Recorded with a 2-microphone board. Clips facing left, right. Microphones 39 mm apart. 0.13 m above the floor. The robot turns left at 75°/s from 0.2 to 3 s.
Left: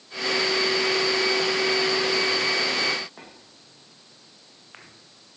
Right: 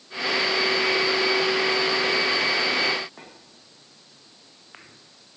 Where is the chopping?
I don't hear chopping.